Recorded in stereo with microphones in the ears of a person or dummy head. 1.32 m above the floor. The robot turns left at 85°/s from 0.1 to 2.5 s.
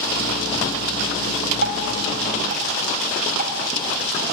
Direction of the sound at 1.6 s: 65° right (ahead or behind).